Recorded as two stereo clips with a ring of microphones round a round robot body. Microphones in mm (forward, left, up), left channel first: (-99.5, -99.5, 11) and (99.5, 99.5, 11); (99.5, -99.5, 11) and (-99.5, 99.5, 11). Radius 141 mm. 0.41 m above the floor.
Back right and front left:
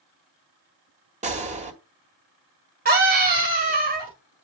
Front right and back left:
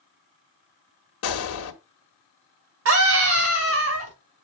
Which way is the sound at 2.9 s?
100° left.